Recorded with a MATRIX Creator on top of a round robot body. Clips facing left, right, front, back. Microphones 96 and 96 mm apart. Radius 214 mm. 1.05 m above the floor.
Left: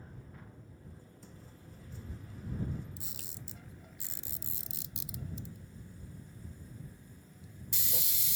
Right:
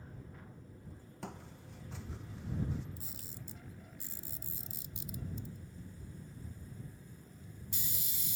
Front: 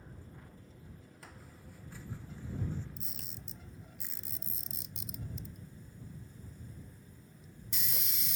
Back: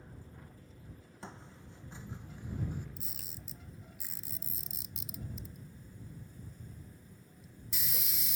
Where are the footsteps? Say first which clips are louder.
Right 11 dB, back 7 dB; 115° right; by 2.9 s 105° right.